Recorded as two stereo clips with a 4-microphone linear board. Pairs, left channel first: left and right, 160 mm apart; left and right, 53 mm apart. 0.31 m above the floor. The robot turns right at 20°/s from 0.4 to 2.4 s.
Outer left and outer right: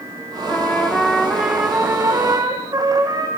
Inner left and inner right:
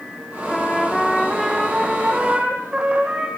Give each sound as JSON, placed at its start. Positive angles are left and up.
{"t": 0.5, "sound": "a trumpet", "azimuth_deg": 165, "distance_m": 4.0}